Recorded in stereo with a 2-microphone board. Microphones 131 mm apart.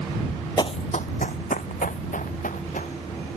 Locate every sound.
0.6 s running footsteps: 35° left (ahead or behind); by 3.0 s 80° left